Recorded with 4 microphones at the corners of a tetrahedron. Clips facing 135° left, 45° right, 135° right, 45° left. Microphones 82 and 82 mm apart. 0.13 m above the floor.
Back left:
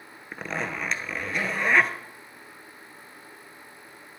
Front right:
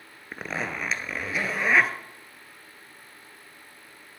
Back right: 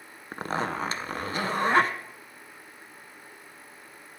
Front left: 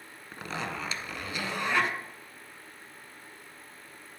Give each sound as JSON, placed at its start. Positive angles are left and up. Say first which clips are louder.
{"t": 0.3, "sound": "a zipper", "louder": "even, back right 6 dB", "azimuth_deg": -130, "distance_m": 0.6}